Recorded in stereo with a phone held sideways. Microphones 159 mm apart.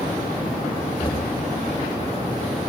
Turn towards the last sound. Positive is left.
turn(degrees=30)  # may be behind; listen again after turning